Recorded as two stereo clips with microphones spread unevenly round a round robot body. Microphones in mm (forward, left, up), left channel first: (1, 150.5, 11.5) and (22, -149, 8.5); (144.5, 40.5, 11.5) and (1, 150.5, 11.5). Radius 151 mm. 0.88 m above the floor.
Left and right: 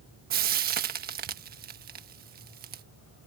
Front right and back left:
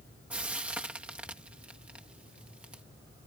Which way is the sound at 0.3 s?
135° right.